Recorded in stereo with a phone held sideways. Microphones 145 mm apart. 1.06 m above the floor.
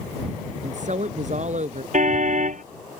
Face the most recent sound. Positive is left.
turn(degrees=-60)  # may be behind; listen again after turning